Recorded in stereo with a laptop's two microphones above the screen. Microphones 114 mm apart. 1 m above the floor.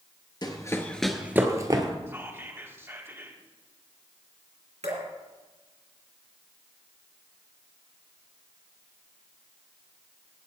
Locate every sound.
0.4 s running footsteps: 40° left (ahead or behind), 1.2 m; by 1.9 s 40° right (ahead or behind), 1.4 m
2.1 s whispering: 20° right (ahead or behind), 2 m
4.8 s dripping: 75° right (ahead or behind), 3.5 m